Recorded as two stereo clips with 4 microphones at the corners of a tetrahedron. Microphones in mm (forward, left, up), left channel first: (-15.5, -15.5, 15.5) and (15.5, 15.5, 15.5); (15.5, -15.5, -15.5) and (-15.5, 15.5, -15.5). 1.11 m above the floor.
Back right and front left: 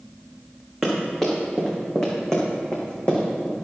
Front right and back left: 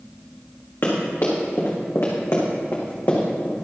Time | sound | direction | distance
0.8 | running footsteps | 50° right | 4.5 m